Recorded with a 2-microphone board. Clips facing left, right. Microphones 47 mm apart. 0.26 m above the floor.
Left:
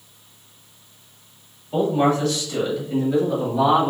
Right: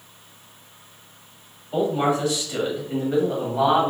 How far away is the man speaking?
About 1.6 m.